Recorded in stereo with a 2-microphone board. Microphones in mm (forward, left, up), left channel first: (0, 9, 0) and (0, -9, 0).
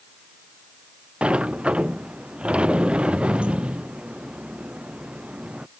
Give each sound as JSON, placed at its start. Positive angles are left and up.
{"t": 1.2, "sound": "a sliding door", "side_deg": -85}